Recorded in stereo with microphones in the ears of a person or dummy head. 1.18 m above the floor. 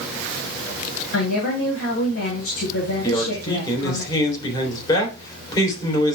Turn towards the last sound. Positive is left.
turn(degrees=20)  # may be behind; listen again after turning